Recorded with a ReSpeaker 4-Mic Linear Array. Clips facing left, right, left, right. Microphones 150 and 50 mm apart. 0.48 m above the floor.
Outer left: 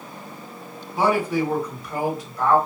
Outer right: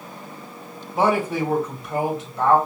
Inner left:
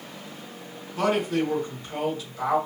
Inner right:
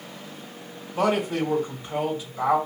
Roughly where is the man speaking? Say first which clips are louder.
Even, inner right 1 dB; right.